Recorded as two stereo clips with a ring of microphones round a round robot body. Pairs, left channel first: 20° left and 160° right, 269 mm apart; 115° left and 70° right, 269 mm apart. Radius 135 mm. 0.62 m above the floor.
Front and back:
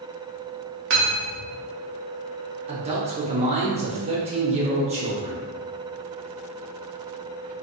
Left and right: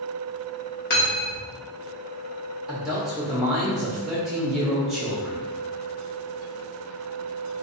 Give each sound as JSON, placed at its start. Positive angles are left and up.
{"t": 0.9, "sound": "cutlery clinking", "azimuth_deg": 165, "distance_m": 0.8}
{"t": 2.7, "sound": "a man speaking", "azimuth_deg": -155, "distance_m": 0.7}